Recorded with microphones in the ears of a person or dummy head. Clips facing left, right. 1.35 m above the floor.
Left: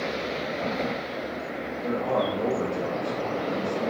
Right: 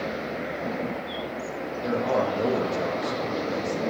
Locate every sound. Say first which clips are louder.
1.8 s a man speaking: right 1 dB; 20° right (ahead or behind), 0.7 m